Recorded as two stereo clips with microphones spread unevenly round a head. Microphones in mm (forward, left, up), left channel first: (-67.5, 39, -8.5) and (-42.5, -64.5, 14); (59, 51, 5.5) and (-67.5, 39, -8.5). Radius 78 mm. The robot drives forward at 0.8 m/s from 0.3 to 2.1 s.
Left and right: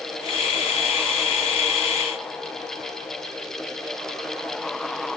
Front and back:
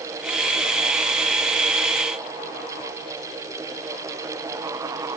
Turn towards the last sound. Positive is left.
No sound to turn to.